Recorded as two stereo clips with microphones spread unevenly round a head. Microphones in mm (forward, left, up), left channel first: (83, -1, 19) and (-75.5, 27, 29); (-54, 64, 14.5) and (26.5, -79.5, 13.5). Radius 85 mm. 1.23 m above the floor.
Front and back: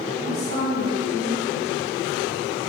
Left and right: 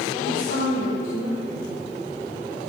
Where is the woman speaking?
40° right, 4 m.